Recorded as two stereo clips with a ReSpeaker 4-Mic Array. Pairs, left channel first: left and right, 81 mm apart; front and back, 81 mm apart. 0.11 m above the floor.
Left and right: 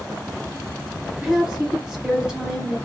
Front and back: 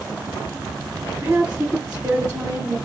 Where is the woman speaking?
150° right, 1.7 m.